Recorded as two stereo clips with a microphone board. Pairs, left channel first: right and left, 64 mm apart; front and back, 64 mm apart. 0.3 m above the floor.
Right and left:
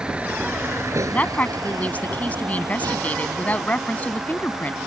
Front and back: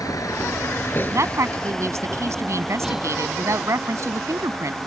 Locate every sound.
0.0 s a vehicle: 15° left; by 4.9 s 110° left
1.1 s a woman speaking: 150° right